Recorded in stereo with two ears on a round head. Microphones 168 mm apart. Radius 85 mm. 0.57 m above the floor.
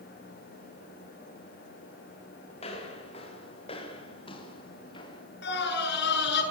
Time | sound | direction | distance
2.6 | footsteps | 35° left (ahead or behind) | 8.5 m
5.4 | a scream | 65° left (ahead or behind) | 7.5 m